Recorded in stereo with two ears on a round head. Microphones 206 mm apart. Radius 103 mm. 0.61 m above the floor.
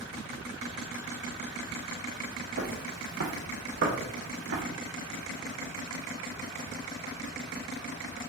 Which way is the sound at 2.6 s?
45° right (ahead or behind).